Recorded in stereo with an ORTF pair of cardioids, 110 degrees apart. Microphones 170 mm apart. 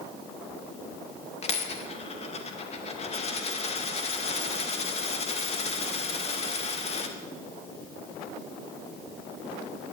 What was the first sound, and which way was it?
A dropped coin, 40° left.